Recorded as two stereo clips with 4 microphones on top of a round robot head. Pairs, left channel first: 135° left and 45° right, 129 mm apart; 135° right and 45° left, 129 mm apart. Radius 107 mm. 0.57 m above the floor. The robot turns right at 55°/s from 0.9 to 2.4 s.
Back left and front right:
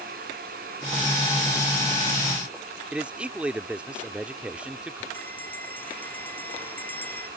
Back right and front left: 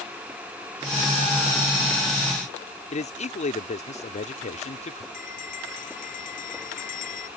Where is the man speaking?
125° right.